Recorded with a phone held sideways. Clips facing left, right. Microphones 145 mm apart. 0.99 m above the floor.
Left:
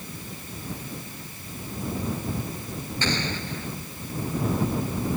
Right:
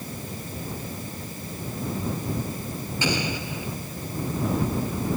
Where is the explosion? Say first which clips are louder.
Right 2 dB; 10° right (ahead or behind).